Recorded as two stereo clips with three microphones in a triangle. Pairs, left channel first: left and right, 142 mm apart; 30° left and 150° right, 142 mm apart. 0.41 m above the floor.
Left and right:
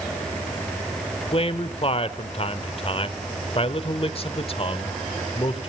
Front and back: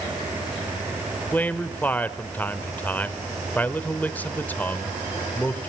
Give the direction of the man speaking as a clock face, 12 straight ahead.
9 o'clock.